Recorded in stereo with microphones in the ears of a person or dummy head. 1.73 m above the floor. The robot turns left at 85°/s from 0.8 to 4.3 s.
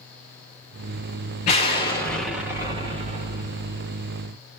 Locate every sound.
1.4 s an explosion: 65° left, 1.4 m; by 3.9 s 135° right, 1.4 m